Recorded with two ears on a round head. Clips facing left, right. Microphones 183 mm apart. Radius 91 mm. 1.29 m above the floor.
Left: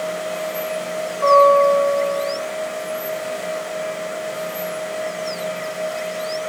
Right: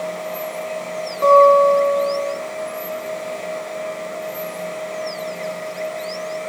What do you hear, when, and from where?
1.2 s a guitar: 50° right (ahead or behind), 2.5 m